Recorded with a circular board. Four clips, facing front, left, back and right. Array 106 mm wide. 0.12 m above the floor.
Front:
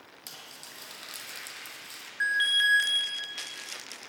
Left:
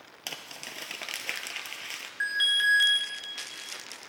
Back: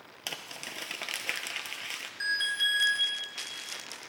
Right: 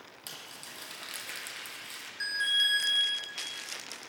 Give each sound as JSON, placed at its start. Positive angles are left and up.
{"t": 0.3, "sound": "crumpling", "azimuth_deg": 140, "distance_m": 0.6}
{"t": 2.2, "sound": "an alarm", "azimuth_deg": 50, "distance_m": 1.6}